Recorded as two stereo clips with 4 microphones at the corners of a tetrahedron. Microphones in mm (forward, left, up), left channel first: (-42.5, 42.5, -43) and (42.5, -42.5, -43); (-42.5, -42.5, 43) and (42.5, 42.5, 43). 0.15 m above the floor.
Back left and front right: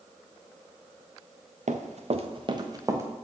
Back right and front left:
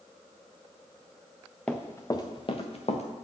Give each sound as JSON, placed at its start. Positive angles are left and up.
{"t": 1.7, "sound": "running footsteps", "azimuth_deg": -55, "distance_m": 1.0}